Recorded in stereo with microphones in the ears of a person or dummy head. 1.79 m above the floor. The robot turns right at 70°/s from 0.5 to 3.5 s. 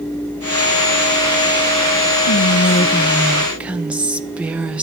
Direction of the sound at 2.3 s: 100° left.